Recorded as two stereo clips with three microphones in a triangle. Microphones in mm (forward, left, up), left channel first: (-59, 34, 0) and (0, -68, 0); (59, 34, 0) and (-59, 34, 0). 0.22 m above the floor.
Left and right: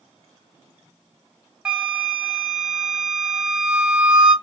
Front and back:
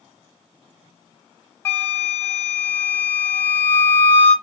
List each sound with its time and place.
1.6 s a flute: 10° left, 0.9 m